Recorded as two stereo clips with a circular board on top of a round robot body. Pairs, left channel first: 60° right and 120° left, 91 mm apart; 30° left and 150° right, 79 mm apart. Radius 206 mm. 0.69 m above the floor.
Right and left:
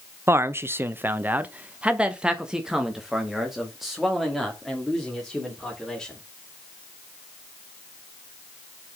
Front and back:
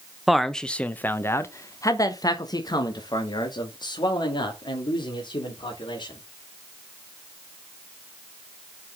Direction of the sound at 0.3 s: 125° left.